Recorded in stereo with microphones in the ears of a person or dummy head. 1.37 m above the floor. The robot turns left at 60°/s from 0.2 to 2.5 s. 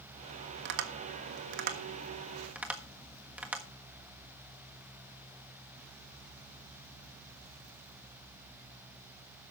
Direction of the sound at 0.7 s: 60° right (ahead or behind).